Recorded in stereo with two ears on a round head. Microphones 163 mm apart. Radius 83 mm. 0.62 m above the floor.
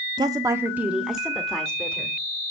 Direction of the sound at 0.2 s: 25° right (ahead or behind).